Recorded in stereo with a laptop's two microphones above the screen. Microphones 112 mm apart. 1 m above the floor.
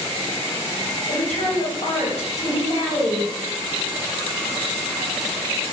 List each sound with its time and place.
1.1 s a woman speaking: 65° left (ahead or behind), 1.8 m